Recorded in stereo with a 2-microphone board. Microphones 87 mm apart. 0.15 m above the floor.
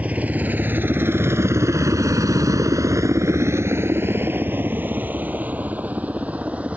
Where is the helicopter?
15° right (ahead or behind).